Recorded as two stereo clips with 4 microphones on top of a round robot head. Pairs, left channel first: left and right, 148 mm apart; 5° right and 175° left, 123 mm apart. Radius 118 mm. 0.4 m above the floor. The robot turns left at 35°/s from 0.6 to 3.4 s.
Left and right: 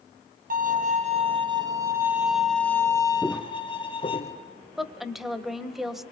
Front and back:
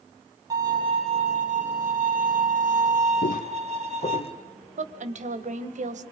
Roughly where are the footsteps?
Ahead.